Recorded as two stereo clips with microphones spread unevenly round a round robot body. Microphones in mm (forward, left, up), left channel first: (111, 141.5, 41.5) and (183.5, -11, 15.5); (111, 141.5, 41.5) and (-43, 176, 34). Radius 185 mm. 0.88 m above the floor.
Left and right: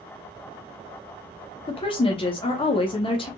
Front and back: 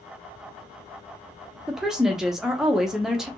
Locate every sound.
1.7 s a woman speaking: 90° left, 0.9 m